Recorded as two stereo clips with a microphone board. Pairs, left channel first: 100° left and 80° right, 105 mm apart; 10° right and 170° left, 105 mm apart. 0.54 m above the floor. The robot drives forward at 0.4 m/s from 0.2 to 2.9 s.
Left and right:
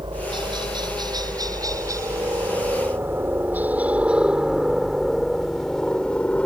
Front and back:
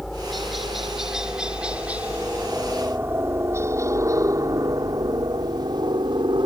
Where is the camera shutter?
No camera shutter in this recording.